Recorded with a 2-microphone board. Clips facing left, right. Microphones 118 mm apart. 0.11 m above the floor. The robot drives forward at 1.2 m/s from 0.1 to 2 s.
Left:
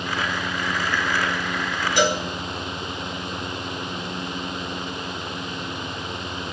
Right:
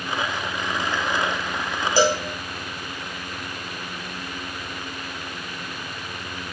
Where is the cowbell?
35° right (ahead or behind), 1.4 m.